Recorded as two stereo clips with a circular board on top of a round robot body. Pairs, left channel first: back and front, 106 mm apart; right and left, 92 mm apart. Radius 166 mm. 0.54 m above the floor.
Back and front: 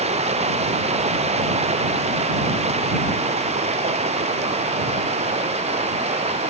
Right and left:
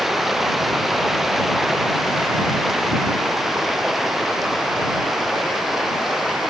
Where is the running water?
Straight ahead.